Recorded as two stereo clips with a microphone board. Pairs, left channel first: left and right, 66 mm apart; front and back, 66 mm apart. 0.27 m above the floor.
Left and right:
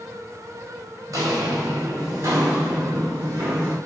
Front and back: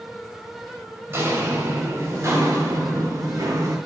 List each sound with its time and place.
1.1 s footsteps: 125° right, 4 m; by 3.8 s 145° right, 4.5 m